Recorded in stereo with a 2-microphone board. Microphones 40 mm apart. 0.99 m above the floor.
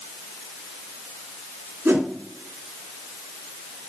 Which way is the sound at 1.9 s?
85° right.